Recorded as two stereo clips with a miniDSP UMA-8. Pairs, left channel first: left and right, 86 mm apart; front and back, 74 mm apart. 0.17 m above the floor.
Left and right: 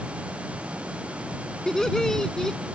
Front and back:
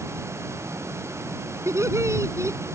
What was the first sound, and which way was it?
Laughter, 170° left.